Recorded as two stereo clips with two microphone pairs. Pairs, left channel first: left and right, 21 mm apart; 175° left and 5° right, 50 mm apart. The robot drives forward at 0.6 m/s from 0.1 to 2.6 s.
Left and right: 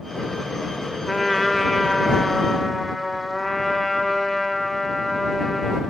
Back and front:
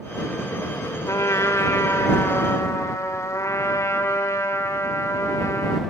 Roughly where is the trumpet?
Behind.